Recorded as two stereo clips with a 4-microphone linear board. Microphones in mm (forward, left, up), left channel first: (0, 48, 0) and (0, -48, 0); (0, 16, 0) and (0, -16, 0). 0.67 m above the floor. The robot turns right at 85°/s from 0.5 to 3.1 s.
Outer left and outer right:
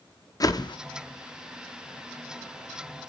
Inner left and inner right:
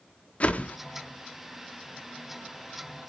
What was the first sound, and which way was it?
A whoosh, 40° left (ahead or behind).